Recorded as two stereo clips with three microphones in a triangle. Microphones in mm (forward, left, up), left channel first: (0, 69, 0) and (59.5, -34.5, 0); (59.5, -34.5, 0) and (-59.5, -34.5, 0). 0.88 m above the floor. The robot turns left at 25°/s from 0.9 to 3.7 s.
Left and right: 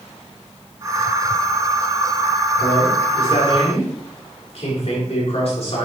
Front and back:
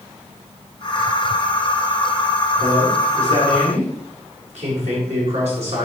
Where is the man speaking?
175° right, 4 m; by 5.9 s 155° left, 4 m.